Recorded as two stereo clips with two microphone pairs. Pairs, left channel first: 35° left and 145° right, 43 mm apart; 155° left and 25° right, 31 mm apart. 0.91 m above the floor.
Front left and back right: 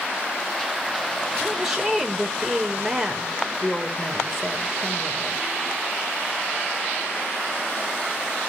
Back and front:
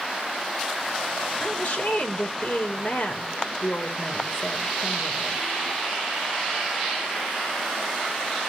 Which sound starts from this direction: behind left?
A woman speaking, at 1.4 s.